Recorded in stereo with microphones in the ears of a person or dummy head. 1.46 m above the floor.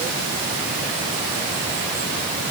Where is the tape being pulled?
No tape being pulled in this recording.